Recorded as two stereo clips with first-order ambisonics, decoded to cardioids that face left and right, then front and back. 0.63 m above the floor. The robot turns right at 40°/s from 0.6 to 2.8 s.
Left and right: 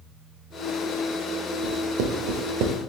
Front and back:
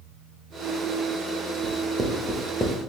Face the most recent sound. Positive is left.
turn(degrees=-75)